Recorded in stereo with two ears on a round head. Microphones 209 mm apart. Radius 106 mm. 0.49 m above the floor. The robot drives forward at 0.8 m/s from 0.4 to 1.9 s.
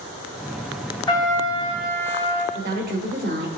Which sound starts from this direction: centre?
A trumpet, at 1.1 s.